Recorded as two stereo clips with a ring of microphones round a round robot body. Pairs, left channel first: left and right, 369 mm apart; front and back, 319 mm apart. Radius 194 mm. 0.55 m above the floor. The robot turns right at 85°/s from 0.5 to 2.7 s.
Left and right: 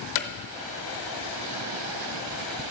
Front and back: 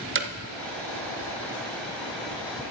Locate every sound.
0.1 s hammering: 125° left, 0.9 m